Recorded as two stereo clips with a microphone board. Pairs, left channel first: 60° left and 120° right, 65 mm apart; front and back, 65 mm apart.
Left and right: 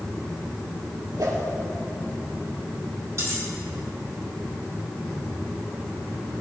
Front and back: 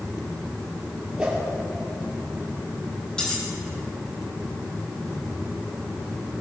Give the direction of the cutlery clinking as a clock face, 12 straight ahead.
3 o'clock.